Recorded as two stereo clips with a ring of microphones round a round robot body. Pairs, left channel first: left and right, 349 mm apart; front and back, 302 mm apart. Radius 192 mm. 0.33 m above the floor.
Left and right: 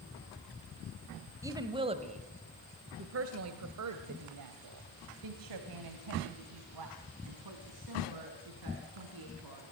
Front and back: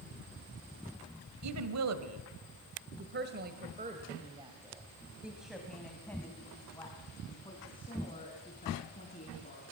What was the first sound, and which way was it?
A woman speaking, 170° right.